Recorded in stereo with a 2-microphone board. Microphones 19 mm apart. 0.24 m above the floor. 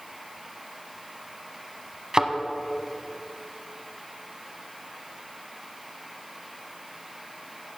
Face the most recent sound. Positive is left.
turn(degrees=-35)  # may be behind; listen again after turning